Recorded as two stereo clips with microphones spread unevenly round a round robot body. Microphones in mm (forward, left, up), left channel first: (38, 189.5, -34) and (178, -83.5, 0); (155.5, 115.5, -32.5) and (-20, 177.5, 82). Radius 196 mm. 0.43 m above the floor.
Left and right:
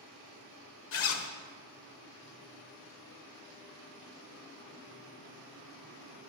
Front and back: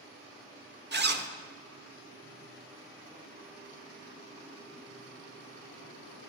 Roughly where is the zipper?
Left.